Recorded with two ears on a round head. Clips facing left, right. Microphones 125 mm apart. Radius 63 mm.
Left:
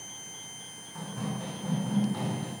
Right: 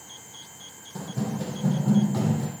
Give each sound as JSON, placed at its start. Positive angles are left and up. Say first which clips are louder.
{"t": 0.9, "sound": "running footsteps", "louder": "right 5 dB", "side_deg": -40, "distance_m": 4.0}